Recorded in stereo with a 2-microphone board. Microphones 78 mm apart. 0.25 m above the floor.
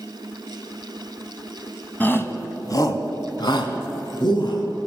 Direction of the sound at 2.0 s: 25° left (ahead or behind).